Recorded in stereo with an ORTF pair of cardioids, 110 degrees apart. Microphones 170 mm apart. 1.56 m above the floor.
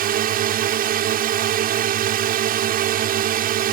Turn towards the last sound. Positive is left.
turn(degrees=-60)